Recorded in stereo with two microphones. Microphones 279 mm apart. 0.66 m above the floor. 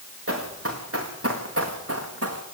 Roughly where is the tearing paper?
I don't hear tearing paper.